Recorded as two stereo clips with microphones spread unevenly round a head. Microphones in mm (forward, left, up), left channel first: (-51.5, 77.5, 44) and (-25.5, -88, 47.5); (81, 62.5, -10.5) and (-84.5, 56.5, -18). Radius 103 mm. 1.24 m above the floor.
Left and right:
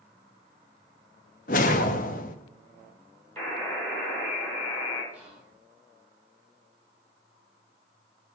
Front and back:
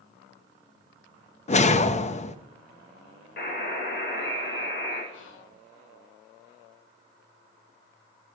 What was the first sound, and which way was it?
A whoosh, 50° left.